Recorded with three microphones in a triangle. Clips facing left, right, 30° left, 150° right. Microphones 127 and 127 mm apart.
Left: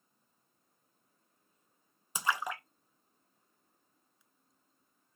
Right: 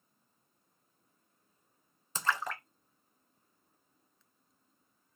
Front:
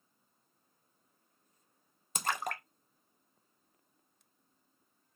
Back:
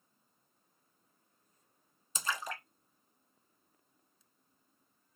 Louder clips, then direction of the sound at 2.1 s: Even, front 3 dB; 15° left.